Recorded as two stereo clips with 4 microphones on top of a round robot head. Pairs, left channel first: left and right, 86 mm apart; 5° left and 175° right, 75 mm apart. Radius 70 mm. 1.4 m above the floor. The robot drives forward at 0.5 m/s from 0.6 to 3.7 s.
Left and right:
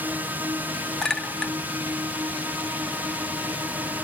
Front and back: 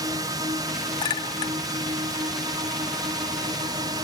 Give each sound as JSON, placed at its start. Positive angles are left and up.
{"t": 0.0, "sound": "a drone", "azimuth_deg": -160}
{"t": 1.0, "sound": "a clink", "azimuth_deg": 10}